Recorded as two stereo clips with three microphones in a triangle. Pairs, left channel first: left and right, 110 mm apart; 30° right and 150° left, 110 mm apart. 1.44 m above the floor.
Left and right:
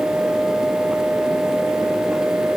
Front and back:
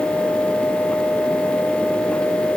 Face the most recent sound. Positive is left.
No sound to turn to.